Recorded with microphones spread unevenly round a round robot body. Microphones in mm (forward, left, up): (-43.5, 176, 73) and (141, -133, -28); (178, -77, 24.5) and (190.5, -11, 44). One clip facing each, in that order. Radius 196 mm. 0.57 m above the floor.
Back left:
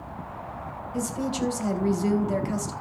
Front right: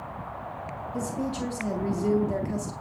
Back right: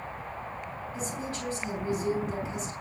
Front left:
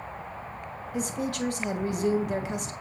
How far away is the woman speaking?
About 3 m.